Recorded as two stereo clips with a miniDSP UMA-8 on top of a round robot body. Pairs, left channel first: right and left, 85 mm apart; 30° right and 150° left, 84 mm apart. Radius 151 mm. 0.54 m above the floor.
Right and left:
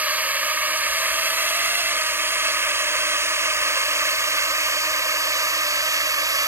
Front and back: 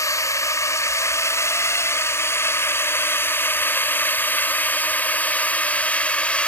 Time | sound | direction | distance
0.0 | a drone | 20° left | ?